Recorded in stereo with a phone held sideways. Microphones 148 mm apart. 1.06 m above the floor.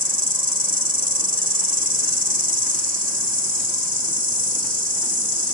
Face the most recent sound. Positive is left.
turn(degrees=-65)  # may be behind; listen again after turning